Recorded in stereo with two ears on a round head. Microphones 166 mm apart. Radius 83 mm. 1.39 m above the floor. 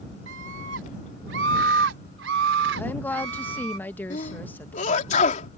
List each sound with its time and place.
0.3 s a scream: 70° right (ahead or behind); by 3.8 s 75° right (ahead or behind)
2.8 s a woman speaking: 10° left (ahead or behind)
4.1 s a sneeze: 40° left (ahead or behind)